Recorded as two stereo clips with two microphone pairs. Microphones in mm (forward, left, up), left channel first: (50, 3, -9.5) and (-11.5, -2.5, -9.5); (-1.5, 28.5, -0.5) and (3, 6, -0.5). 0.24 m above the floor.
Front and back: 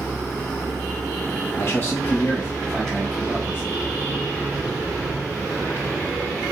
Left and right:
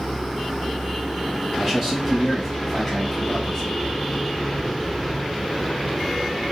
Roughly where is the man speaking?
Ahead.